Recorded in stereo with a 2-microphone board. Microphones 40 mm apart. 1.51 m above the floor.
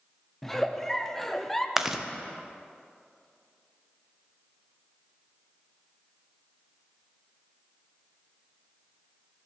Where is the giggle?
10° left (ahead or behind), 0.6 m.